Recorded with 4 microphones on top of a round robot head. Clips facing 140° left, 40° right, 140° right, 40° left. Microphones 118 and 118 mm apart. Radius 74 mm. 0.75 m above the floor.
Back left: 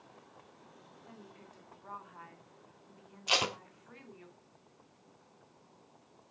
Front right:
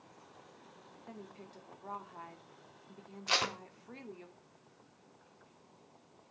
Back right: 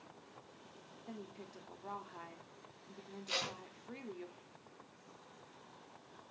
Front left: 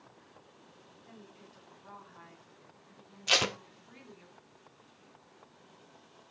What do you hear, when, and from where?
1.1 s a woman speaking: 95° right, 2.5 m
3.3 s tape being pulled: 65° left, 0.8 m